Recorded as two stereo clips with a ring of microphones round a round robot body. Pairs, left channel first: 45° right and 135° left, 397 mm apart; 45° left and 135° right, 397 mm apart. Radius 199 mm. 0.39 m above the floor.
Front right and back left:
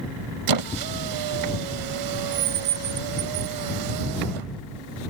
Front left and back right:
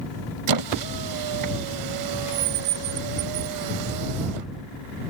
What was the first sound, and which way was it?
A squeak, straight behind.